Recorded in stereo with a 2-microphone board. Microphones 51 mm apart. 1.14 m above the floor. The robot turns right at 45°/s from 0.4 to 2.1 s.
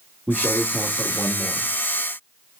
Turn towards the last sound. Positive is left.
turn(degrees=-80)